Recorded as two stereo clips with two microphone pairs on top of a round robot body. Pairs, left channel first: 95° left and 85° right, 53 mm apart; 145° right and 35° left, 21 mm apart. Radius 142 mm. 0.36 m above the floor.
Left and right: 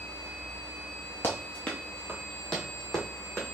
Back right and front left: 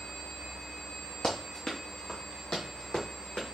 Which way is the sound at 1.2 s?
155° left.